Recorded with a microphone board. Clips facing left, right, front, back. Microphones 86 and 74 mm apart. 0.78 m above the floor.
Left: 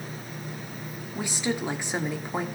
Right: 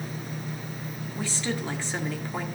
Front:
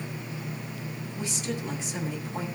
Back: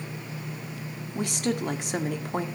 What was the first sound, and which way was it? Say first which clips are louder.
A woman speaking: left 2 dB, back 6 dB; 165° left.